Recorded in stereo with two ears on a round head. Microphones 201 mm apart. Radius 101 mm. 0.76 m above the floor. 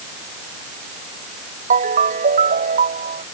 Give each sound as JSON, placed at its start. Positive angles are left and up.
{"t": 1.7, "sound": "a ringtone", "side_deg": -35}